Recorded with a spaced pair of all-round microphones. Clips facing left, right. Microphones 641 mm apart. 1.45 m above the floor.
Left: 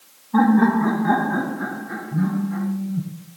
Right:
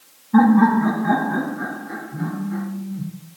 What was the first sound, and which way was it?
Laughter, 40° right (ahead or behind).